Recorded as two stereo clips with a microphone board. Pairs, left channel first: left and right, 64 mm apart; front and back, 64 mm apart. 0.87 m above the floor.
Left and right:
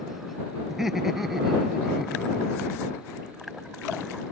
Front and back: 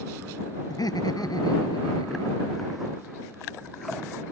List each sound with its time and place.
0.7 s laughter: 5° right